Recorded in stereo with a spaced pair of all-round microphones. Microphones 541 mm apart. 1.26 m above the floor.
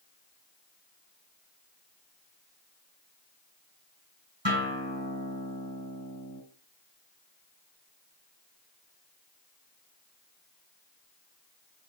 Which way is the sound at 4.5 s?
50° right (ahead or behind).